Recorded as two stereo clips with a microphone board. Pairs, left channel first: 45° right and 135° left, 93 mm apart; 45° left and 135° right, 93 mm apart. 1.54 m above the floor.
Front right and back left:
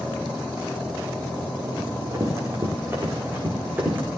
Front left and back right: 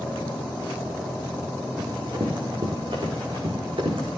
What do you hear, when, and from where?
1.8 s running footsteps: 170° right, 5 m; by 4.1 s 155° right, 6 m